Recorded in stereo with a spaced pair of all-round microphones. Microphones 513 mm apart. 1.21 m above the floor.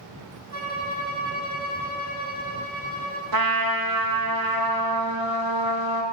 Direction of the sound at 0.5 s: 30° right (ahead or behind).